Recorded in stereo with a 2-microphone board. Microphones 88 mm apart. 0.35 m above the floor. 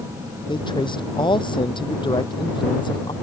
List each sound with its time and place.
0.5 s a man speaking: 65° left (ahead or behind)